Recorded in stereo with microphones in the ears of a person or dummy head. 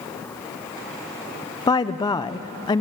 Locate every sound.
1.7 s a woman speaking: 20° left (ahead or behind), 0.7 m